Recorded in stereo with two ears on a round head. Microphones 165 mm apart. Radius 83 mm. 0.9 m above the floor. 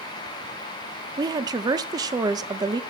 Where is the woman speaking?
20° right (ahead or behind), 0.7 m.